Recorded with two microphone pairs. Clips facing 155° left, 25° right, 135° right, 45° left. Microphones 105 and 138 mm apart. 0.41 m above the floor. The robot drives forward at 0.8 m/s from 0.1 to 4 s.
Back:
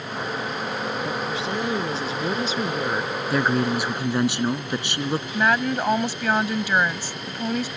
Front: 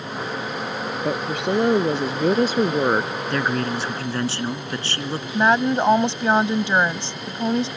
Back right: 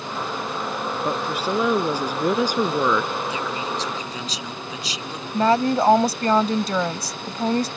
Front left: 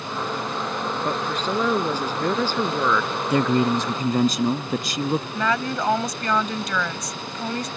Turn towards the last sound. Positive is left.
turn(degrees=-85)